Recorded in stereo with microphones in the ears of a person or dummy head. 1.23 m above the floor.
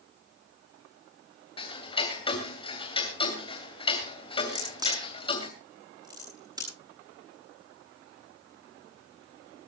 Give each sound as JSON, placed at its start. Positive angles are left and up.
{"t": 1.6, "sound": "ticking", "side_deg": 30, "distance_m": 2.5}
{"t": 4.5, "sound": "a crack", "side_deg": -25, "distance_m": 7.5}